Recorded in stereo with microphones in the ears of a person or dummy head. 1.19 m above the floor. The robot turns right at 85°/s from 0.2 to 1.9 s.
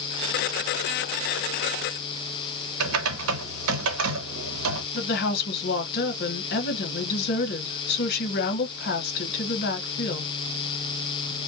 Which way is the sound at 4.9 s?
50° left (ahead or behind).